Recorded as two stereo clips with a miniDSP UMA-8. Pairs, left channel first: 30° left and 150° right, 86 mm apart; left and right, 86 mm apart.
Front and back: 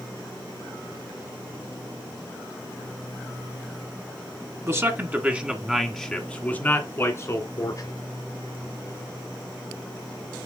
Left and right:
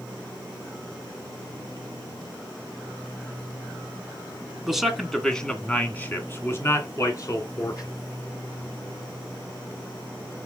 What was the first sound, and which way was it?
A man speaking, 170° right.